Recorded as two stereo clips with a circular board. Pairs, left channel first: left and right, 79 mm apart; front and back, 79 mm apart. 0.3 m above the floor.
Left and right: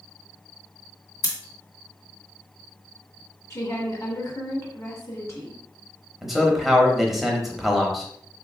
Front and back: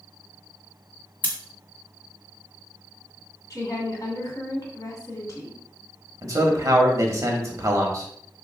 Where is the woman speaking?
40° left, 1.9 m.